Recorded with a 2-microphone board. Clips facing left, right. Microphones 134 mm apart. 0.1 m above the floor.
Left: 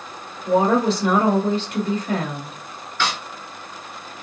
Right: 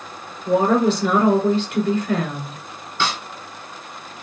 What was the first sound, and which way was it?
A woman speaking, 35° left (ahead or behind).